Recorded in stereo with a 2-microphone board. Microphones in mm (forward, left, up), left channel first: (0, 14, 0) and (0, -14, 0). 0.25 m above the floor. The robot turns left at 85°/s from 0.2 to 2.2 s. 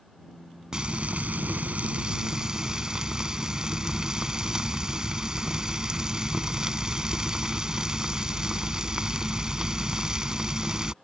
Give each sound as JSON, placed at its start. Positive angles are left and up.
{"t": 0.7, "sound": "frying", "azimuth_deg": -25}